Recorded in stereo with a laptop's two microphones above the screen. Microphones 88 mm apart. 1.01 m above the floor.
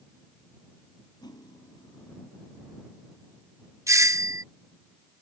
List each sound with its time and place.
1.2 s cutlery clinking: 55° left (ahead or behind)
3.9 s a doorbell: 35° right (ahead or behind)